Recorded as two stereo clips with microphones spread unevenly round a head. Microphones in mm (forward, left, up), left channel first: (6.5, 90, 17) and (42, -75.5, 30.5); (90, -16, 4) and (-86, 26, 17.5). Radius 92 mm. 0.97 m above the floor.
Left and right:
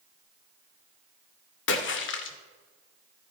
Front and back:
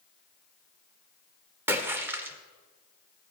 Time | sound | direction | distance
1.7 | a splash | 90° left | 1.4 m